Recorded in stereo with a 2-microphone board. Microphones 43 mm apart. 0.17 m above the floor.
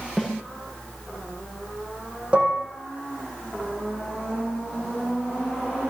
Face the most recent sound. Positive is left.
turn(degrees=-25)  # may be behind; listen again after turning